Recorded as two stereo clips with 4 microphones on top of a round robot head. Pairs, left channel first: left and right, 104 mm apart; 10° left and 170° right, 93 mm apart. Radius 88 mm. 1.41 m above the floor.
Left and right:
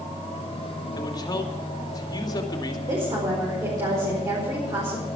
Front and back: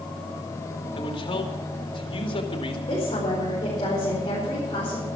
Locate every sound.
1.0 s a man speaking: 35° left, 2.5 m
2.9 s a woman speaking: 40° right, 5 m